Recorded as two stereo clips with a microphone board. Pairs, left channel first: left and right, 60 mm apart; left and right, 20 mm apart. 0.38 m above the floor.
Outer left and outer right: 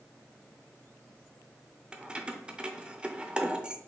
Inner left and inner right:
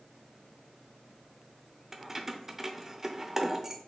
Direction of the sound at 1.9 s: 15° right (ahead or behind).